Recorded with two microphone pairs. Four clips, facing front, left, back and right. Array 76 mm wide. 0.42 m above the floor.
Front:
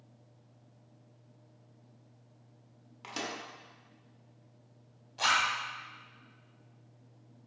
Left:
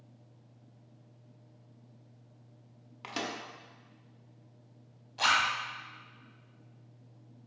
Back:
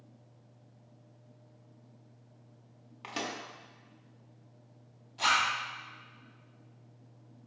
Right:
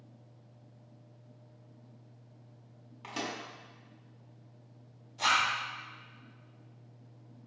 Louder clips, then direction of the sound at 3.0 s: Left 1 dB, back 2 dB; 130° left.